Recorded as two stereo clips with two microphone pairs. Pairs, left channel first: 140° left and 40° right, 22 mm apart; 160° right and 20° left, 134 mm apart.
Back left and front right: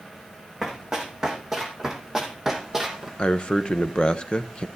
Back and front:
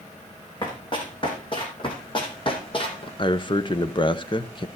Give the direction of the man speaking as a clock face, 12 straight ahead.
7 o'clock.